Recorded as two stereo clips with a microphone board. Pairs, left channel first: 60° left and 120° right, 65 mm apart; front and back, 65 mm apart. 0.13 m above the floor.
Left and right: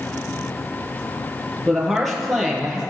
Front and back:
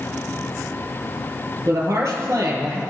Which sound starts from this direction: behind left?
A woman speaking, at 1.6 s.